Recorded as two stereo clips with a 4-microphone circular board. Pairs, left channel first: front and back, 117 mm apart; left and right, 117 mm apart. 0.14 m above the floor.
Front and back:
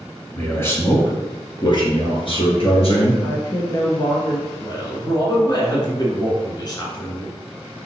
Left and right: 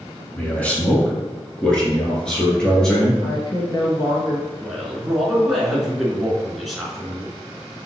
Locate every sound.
0.4 s a man speaking: 45° left, 1.6 m; by 3.1 s 5° left, 3 m
3.2 s a woman speaking: 45° left, 2.5 m
4.6 s a man speaking: straight ahead, 2 m